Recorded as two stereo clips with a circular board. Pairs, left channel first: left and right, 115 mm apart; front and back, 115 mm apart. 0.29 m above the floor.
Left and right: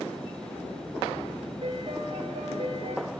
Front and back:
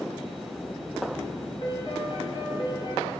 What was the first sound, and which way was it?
A piano, 50° right.